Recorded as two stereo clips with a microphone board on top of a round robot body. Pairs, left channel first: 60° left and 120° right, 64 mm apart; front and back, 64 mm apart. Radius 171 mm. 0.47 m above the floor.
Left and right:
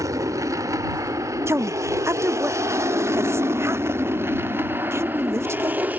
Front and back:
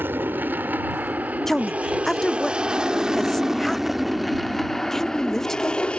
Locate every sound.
0.0 s an aircraft: 130° right; by 6.0 s 65° right
1.5 s a woman speaking: 85° right